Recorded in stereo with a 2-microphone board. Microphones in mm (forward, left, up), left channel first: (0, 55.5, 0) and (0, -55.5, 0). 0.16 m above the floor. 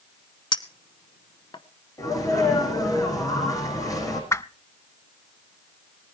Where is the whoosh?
25° left (ahead or behind), 0.5 m.